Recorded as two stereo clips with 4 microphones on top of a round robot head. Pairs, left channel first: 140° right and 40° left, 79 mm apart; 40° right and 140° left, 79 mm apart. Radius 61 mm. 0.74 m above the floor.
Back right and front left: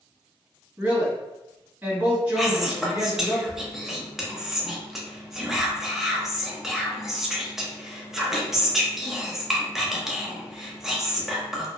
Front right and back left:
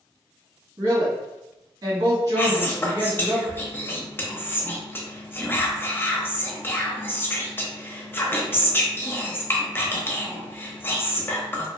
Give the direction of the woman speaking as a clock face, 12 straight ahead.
8 o'clock.